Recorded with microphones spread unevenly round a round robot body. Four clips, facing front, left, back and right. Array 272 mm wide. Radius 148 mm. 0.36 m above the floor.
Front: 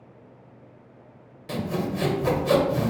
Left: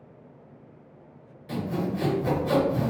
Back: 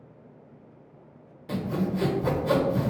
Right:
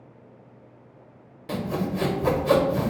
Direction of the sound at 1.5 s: 90° right.